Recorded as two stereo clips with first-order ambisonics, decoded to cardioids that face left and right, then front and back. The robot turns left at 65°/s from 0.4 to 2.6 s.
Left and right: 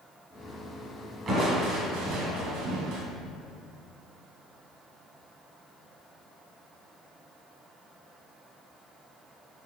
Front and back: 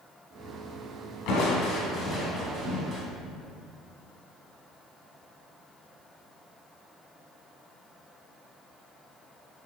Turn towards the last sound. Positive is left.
turn(degrees=-105)